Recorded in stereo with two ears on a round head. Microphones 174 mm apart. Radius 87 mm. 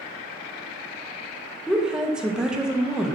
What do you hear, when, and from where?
1.7 s a woman speaking: 5° right (ahead or behind), 0.5 m